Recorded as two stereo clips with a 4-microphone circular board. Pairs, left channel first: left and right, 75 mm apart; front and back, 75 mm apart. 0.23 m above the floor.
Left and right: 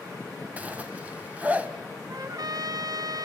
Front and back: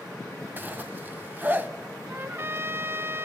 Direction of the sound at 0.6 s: 140° right.